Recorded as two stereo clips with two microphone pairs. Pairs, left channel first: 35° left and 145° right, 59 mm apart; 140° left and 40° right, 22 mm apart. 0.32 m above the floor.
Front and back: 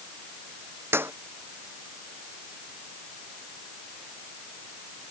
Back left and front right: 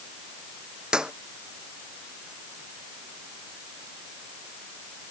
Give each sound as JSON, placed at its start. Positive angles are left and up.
{"t": 0.9, "sound": "a clap", "azimuth_deg": -100}